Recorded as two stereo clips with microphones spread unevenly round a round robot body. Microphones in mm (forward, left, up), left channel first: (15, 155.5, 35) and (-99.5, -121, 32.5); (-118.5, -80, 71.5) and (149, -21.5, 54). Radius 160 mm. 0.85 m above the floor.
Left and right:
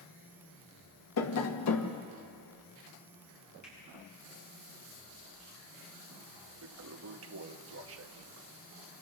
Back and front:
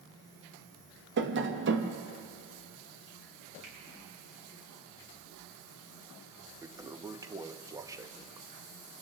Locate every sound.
1.2 s tapping: 45° left, 1.3 m
3.6 s a finger snap: straight ahead, 8.5 m
6.6 s a toilet flushing: 65° right, 0.8 m